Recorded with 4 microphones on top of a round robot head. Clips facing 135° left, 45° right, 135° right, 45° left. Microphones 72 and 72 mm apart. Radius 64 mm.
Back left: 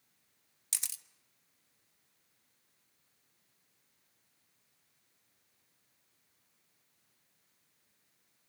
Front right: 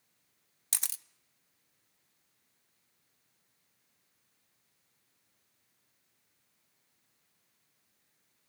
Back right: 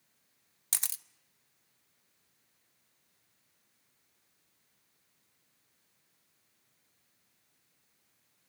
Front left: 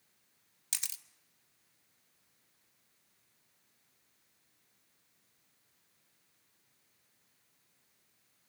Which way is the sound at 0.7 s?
85° right.